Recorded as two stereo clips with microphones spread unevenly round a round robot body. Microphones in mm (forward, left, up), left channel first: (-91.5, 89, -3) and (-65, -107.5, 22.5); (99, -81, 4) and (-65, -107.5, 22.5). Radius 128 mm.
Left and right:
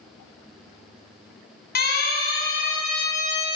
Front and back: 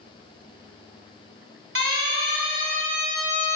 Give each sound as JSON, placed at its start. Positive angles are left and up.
{"t": 1.8, "sound": "a siren", "azimuth_deg": 135, "distance_m": 7.5}